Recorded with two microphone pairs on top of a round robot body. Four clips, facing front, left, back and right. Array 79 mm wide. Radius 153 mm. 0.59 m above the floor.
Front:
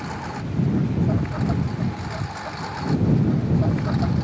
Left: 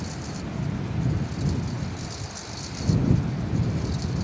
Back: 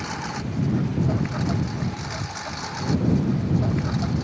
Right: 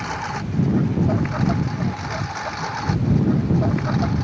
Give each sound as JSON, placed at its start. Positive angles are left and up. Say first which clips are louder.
{"t": 0.0, "sound": "a lawn mower", "louder": "right 8 dB, even", "azimuth_deg": -95}